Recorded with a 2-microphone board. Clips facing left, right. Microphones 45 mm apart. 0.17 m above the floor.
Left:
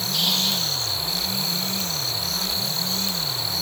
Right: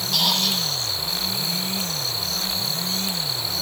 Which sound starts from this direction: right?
A squeak, at 0.1 s.